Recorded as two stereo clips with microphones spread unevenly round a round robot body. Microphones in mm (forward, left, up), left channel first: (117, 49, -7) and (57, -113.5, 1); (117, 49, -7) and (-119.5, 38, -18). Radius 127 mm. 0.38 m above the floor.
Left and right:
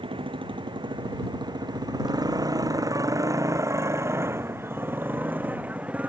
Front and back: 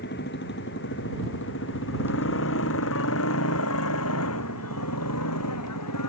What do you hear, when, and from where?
0.0 s a motorcycle: 50° right; by 6.1 s 30° right